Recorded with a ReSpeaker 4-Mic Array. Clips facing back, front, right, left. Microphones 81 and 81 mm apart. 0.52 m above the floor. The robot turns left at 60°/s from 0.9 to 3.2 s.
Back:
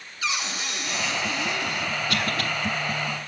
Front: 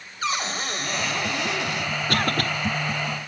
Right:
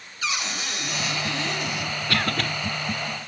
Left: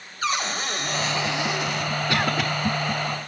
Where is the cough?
30° left, 1.6 m; by 2.5 s 5° left, 1.6 m.